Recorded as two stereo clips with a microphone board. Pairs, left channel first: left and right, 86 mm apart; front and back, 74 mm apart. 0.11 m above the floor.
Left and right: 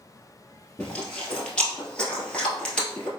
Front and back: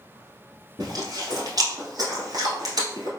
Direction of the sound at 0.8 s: 165° left.